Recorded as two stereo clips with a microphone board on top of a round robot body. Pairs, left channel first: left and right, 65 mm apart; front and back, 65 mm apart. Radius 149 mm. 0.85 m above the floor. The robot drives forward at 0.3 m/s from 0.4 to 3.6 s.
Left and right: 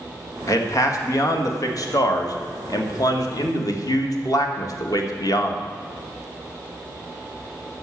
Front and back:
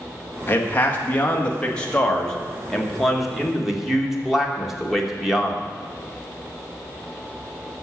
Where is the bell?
I don't hear a bell.